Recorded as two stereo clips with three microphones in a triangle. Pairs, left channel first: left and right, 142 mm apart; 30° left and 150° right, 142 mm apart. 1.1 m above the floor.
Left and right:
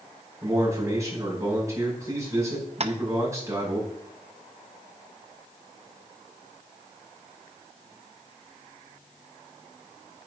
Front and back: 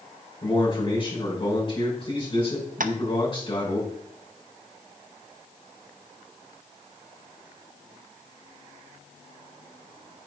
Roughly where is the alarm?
I don't hear an alarm.